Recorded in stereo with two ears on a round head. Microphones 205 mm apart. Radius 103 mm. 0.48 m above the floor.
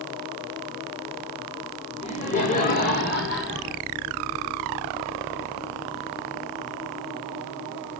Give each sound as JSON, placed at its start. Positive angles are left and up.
{"t": 2.0, "sound": "laughter", "side_deg": 25, "distance_m": 1.4}